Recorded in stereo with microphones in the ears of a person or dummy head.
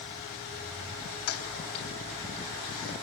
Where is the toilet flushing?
80° left, 3 m.